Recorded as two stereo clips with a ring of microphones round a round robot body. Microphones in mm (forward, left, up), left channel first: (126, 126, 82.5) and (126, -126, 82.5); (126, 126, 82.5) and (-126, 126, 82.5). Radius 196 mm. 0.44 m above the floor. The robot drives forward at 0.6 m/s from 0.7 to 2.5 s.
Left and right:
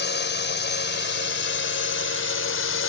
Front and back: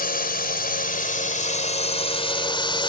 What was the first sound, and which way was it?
A drone, 50° left.